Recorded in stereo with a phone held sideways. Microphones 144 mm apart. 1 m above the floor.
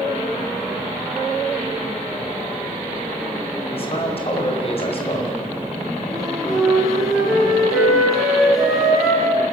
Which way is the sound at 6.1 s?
5° right (ahead or behind).